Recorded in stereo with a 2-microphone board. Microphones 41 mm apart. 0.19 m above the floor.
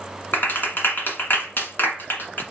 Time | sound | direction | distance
0.3 | a clap | 55° left (ahead or behind) | 1.5 m